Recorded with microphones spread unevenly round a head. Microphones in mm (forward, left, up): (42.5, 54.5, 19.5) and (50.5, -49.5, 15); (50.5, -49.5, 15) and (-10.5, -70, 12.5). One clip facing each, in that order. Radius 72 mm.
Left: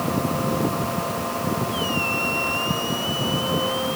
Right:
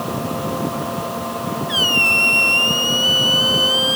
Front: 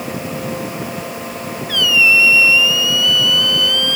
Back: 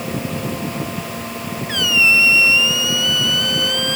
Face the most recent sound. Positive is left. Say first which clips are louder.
# right 2 dB, front 3 dB
turn(degrees=-100)